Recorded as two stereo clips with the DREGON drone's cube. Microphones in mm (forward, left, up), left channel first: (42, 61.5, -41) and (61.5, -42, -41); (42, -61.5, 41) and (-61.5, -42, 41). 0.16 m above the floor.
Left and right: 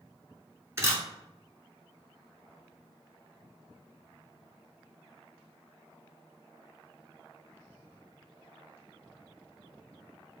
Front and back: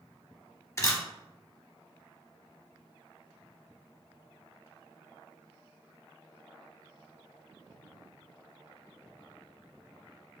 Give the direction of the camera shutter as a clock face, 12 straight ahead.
2 o'clock.